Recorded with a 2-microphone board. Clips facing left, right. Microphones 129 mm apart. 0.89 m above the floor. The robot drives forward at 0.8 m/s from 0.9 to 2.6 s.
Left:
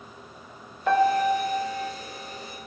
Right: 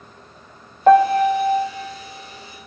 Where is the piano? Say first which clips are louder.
Right 8 dB; 55° right (ahead or behind), 0.9 m; by 1.8 s 50° right (ahead or behind), 1.0 m.